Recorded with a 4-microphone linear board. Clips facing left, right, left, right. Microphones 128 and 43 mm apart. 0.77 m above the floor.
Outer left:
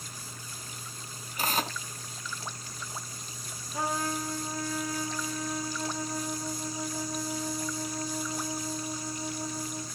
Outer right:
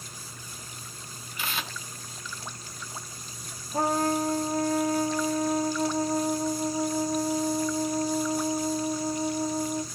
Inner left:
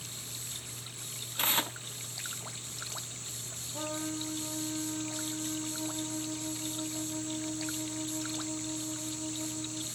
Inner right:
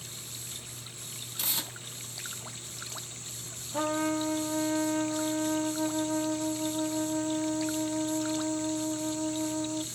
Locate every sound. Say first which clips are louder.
1.4 s tearing paper: outer left 5 dB, inner left 6 dB; 40° left (ahead or behind), 0.9 m
3.7 s a trumpet: outer right 7 dB, inner right 8 dB; 40° right (ahead or behind), 1.1 m